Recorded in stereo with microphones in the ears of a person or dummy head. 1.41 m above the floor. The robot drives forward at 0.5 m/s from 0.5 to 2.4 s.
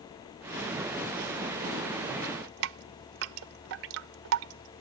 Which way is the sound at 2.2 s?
65° right (ahead or behind).